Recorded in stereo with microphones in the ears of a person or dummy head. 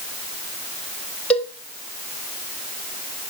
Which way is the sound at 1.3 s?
10° left (ahead or behind).